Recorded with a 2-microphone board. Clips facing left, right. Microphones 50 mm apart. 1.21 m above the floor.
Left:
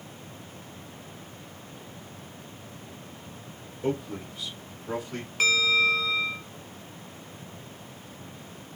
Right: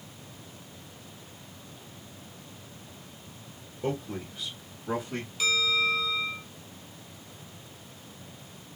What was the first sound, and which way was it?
A man speaking, 15° right (ahead or behind).